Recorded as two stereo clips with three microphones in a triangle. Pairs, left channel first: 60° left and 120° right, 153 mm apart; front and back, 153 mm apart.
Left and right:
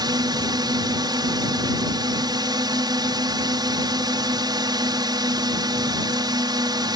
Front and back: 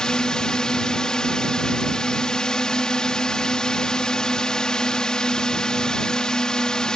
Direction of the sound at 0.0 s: 80° right.